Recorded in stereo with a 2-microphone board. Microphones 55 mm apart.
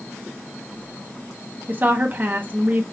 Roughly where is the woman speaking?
Right.